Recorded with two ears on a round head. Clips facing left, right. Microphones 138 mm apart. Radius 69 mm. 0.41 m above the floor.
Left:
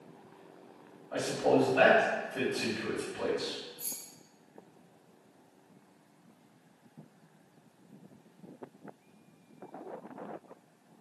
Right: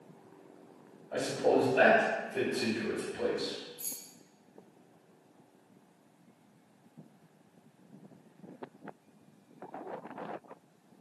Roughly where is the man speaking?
Right.